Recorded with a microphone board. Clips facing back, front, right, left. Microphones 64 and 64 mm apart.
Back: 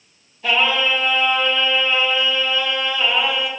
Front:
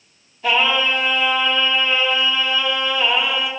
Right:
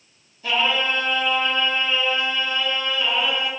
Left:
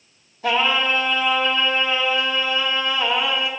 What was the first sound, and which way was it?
Singing, 90° left.